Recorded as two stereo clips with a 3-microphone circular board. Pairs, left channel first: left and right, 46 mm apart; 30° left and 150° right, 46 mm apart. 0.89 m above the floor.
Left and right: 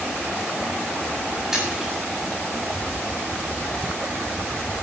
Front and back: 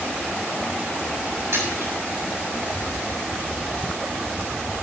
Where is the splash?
170° right, 7 m.